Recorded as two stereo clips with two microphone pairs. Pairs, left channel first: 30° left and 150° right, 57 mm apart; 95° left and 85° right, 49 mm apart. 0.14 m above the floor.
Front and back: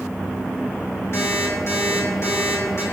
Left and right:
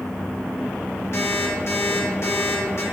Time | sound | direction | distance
1.1 | an alarm clock | 70° left | 3 m